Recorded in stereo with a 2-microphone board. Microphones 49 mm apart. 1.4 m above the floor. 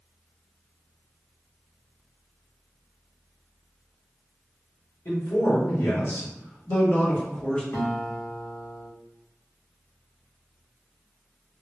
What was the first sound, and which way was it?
A man speaking, 70° left (ahead or behind).